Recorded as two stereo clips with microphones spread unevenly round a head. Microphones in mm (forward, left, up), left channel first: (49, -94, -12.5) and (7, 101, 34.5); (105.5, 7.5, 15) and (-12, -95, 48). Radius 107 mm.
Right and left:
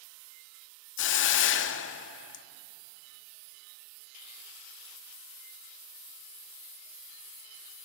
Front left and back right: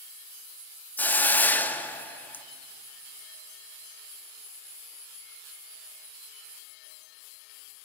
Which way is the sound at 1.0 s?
45° right.